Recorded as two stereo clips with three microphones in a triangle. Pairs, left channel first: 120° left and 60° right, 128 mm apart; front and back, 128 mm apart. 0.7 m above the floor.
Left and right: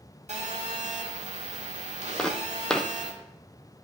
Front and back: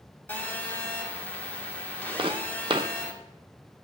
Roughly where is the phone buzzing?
Right.